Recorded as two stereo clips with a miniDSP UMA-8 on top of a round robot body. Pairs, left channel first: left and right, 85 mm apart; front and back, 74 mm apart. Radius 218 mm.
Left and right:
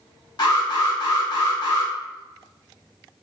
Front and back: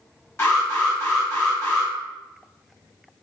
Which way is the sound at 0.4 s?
55° left.